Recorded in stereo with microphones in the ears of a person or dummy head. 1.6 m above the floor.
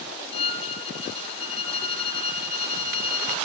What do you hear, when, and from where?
0.3 s a violin: 30° left (ahead or behind), 2 m